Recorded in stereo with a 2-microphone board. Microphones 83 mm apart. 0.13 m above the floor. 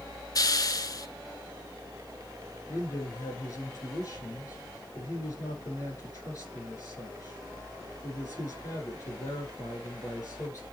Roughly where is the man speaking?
Left.